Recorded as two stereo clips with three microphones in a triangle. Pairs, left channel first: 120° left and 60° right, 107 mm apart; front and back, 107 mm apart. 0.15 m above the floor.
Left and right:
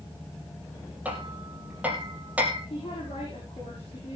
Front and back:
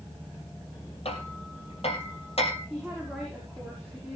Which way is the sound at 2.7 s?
80° left.